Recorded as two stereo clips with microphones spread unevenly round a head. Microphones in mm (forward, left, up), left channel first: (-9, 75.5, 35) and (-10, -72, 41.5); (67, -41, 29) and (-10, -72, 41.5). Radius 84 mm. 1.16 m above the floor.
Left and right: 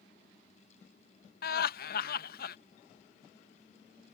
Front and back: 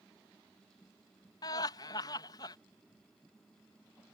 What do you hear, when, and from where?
1.4 s laughter: 70° left